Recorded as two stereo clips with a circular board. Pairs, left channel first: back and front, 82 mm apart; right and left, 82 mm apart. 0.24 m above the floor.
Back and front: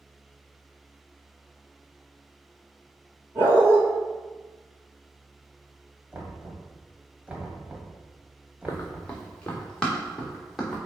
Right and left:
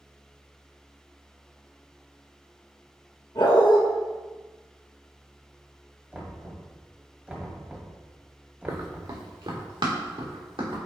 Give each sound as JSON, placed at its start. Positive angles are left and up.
{"t": 3.4, "sound": "a dog barking", "azimuth_deg": -55, "distance_m": 2.5}
{"t": 6.1, "sound": "knocking", "azimuth_deg": 40, "distance_m": 1.2}
{"t": 8.7, "sound": "running footsteps", "azimuth_deg": 125, "distance_m": 1.3}